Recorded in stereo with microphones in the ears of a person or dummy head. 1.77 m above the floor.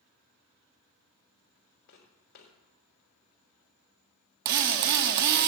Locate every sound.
1.9 s footsteps: 60° left (ahead or behind), 4 m
4.5 s a drill: 50° right (ahead or behind), 0.8 m